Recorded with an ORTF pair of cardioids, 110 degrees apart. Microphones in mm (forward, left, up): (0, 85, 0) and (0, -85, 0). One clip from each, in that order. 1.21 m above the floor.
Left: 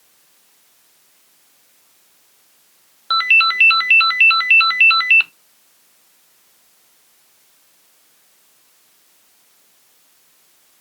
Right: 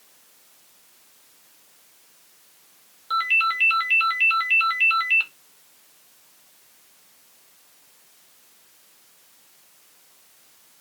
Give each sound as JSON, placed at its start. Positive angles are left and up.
{"t": 3.1, "sound": "a ringtone", "azimuth_deg": 50, "distance_m": 0.6}